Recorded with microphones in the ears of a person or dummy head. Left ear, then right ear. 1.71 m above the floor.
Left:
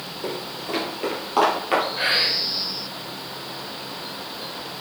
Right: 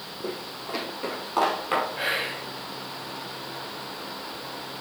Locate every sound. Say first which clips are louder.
0.2 s footsteps: left 4 dB; 40° left (ahead or behind), 2.5 m; by 1.9 s 5° right (ahead or behind), 3 m
2.0 s whispering: left 7 dB; 5° right (ahead or behind), 1.5 m